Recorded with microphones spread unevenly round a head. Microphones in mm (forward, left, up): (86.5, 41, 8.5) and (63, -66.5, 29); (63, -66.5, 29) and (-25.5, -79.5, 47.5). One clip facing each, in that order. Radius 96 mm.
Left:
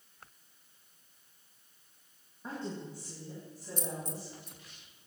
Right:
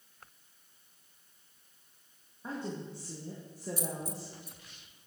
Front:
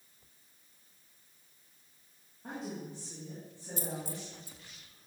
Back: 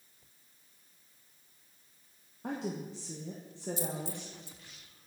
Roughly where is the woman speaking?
Behind.